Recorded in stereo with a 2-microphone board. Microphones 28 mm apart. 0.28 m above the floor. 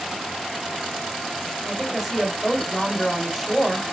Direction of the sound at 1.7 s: Centre (ahead or behind).